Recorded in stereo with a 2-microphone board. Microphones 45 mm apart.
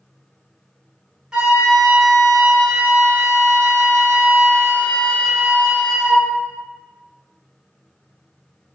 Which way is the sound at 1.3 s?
20° right (ahead or behind).